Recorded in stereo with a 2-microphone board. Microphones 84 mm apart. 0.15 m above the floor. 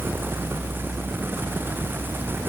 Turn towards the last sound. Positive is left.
No sound to turn to.